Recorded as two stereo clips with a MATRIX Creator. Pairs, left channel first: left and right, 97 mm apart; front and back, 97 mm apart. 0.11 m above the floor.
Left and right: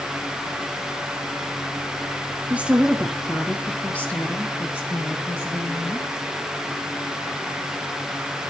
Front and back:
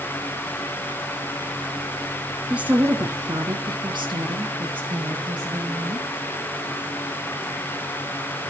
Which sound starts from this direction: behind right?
A woman speaking, at 2.5 s.